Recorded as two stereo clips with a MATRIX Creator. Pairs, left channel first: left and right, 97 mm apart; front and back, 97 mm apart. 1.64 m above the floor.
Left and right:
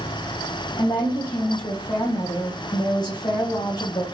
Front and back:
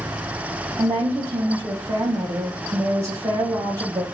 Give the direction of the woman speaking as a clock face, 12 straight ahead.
7 o'clock.